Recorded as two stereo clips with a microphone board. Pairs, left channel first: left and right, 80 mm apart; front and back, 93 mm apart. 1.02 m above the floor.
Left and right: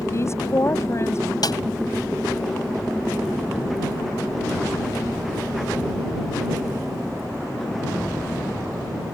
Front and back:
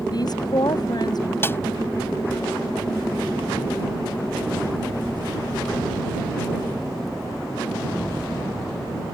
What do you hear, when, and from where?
0.1 s a woman speaking: 35° left
1.4 s a snare drum: 65° left